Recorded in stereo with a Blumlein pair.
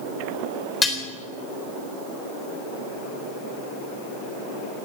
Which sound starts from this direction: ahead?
Dishes clattering, at 0.8 s.